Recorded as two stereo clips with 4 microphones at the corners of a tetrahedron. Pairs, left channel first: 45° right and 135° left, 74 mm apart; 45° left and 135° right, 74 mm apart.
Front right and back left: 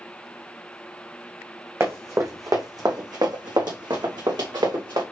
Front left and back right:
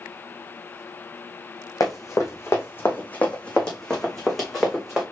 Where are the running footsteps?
85° left, 1.7 m; by 5.0 s 140° left, 2.5 m.